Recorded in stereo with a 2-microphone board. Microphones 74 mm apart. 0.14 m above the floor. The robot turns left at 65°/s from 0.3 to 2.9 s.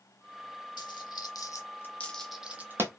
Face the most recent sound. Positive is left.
turn(degrees=-40)  # may be behind; listen again after turning